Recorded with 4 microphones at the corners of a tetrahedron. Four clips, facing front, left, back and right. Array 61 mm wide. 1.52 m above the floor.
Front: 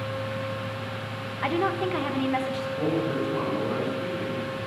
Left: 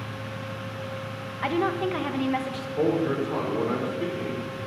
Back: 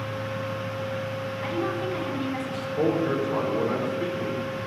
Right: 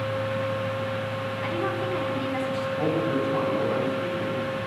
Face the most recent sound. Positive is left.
turn(degrees=130)